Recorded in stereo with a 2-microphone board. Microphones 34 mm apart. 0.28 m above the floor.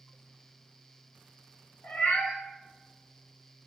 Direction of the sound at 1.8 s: 75° left (ahead or behind).